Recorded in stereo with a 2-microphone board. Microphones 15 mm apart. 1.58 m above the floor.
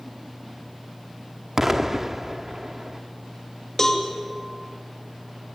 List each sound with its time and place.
1.6 s an explosion: 30° right (ahead or behind), 1.2 m
3.8 s a cowbell: 35° left (ahead or behind), 2.5 m